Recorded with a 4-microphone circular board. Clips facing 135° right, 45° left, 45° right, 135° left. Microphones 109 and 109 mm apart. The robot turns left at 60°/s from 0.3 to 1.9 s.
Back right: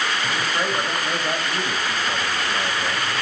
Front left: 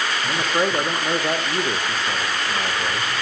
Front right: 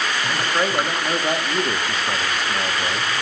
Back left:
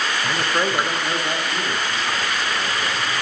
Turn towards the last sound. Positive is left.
turn(degrees=-15)